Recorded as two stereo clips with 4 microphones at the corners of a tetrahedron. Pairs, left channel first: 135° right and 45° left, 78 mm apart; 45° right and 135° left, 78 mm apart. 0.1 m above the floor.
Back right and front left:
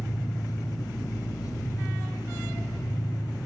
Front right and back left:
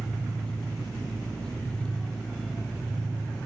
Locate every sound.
0.0 s an engine running: 120° right, 1.2 m